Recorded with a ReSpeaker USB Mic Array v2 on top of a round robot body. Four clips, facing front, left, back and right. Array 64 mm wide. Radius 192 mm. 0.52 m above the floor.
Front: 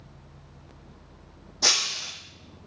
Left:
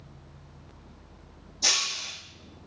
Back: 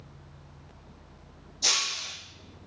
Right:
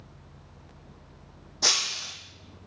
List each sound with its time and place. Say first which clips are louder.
1.6 s breaking glass: right 1 dB, front 3 dB; 50° right, 1.3 m